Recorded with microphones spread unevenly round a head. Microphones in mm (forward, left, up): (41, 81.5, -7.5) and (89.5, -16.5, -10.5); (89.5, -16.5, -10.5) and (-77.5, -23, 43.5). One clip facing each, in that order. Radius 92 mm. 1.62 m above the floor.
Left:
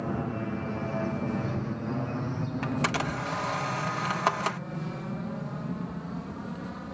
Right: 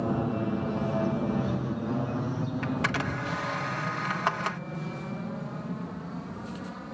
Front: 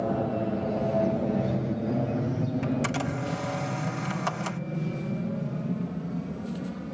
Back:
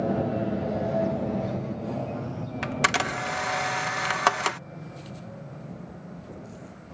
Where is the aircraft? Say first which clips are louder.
Right 3 dB, back 1 dB; 100° right; by 6.9 s 30° left.